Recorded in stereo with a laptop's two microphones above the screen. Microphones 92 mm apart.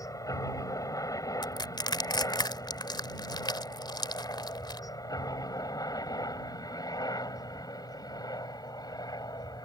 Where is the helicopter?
40° left (ahead or behind); by 9.7 s 45° left (ahead or behind).